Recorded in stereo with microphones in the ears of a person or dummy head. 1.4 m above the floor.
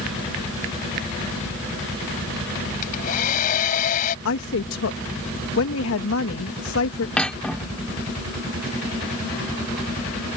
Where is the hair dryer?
45° left (ahead or behind).